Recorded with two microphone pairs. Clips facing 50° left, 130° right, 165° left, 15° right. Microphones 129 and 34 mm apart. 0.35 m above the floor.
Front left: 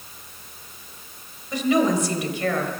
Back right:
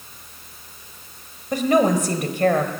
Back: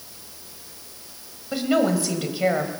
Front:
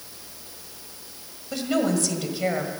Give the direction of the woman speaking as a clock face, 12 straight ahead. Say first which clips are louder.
Back right 2 dB, back 3 dB; 4 o'clock.